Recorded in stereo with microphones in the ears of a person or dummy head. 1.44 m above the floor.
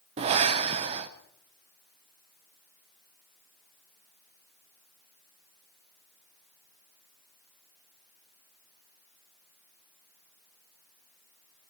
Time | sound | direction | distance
0.2 | breathing | 30° right (ahead or behind) | 0.5 m